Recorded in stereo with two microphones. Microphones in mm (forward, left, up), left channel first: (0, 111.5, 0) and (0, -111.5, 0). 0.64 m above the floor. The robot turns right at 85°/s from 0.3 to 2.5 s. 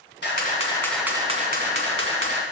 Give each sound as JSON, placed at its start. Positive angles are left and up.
{"t": 0.2, "sound": "a camera shutter", "azimuth_deg": 125, "distance_m": 1.7}